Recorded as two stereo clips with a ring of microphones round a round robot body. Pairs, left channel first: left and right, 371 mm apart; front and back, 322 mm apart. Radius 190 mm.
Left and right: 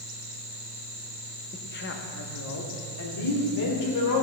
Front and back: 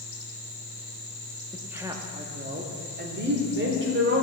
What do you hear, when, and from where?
1.5 s a woman speaking: 90° left, 0.9 m; by 4.2 s 125° left, 2.5 m